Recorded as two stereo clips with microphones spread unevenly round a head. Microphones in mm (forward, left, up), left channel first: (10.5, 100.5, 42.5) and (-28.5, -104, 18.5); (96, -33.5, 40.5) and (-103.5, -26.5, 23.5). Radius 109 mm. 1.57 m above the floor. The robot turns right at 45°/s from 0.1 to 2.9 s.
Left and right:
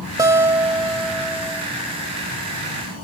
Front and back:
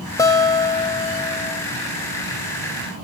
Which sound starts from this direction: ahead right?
A guitar, at 0.2 s.